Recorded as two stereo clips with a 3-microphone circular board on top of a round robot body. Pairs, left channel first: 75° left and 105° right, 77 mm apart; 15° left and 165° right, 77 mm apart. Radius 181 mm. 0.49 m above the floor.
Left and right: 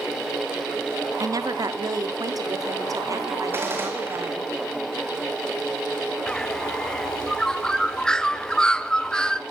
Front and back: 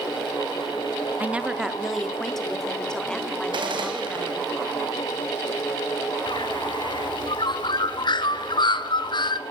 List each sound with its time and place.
1.2 s a woman speaking: 105° right, 1.6 m; by 4.5 s 55° right, 5 m
3.5 s a gunshot: 165° right, 4.5 m
6.3 s a bird: 5° right, 1.0 m